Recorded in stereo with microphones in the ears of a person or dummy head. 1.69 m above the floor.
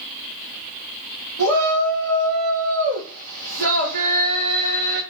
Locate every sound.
1.4 s a shout: 55° right (ahead or behind), 1.9 m